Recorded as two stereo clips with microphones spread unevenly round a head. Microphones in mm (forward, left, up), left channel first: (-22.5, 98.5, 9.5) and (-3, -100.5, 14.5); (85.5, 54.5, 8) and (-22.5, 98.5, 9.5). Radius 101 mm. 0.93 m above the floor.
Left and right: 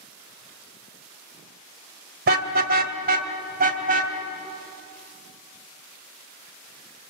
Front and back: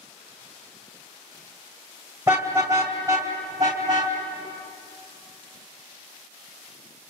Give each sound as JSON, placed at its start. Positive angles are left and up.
{"t": 2.3, "sound": "a car horn", "azimuth_deg": -125, "distance_m": 2.0}